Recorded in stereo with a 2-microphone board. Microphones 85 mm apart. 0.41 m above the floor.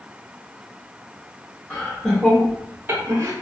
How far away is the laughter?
About 0.8 m.